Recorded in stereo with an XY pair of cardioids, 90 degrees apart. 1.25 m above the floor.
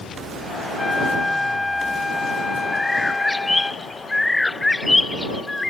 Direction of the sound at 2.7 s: 15° left.